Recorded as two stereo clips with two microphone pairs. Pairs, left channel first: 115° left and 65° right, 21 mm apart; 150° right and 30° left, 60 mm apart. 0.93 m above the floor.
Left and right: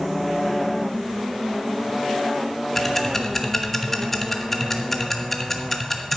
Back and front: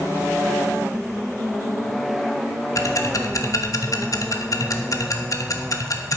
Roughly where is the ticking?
Behind.